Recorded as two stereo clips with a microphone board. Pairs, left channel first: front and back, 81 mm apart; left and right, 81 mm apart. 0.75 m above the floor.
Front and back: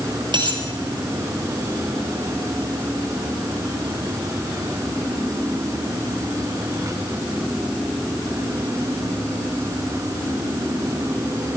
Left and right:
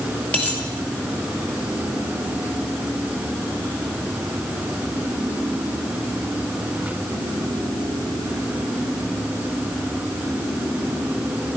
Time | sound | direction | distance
0.3 | a dropped coin | 160° left | 2.5 m